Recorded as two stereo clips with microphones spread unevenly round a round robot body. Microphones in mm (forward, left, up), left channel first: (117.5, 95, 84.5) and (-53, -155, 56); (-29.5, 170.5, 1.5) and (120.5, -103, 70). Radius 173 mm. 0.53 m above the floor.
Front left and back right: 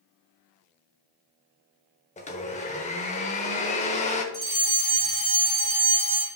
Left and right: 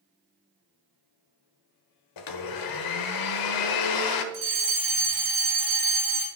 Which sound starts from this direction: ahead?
A fire alarm, at 4.3 s.